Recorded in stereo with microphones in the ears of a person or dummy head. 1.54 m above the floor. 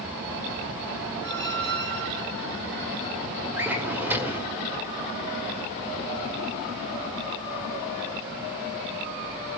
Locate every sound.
1.2 s a squeak: 55° right (ahead or behind), 1.4 m
3.6 s a drawer: 5° right (ahead or behind), 1.9 m